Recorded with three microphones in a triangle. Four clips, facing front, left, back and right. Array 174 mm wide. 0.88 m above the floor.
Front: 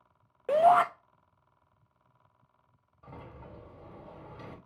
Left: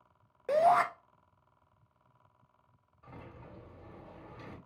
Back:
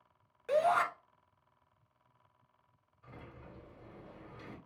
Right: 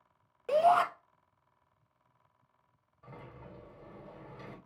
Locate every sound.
0.5 s a shout: 20° left, 0.6 m
3.0 s a sliding door: 5° right, 1.2 m